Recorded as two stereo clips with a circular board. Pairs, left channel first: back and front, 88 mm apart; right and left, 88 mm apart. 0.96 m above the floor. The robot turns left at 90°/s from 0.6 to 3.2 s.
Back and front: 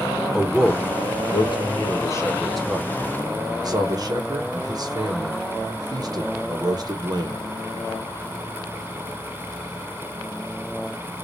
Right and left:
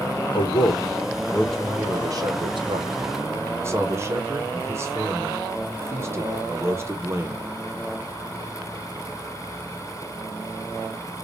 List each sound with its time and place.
0.3 s a man speaking: 90° right, 1.1 m; by 7.5 s 35° left, 1.1 m